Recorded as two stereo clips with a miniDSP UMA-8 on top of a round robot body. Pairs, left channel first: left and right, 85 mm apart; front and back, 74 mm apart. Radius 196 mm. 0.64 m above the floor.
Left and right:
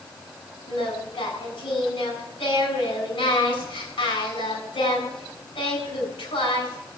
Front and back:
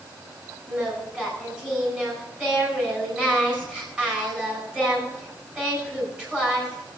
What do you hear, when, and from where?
0.7 s singing: 110° left, 8.5 m